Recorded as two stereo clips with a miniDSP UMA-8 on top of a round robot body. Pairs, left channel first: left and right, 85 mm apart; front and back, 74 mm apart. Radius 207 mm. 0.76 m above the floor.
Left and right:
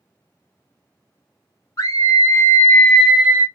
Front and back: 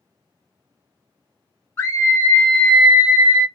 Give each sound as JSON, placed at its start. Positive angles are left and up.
{"t": 1.8, "sound": "a scream", "azimuth_deg": 50, "distance_m": 1.6}